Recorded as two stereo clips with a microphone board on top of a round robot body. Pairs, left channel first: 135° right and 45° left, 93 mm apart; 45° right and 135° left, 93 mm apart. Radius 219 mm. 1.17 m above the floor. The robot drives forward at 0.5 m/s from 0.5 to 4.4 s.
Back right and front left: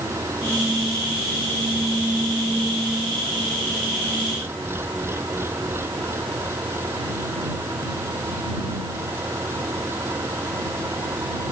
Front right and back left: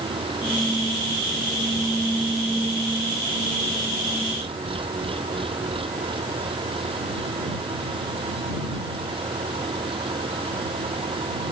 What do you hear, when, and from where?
0.0 s an engine running: 110° left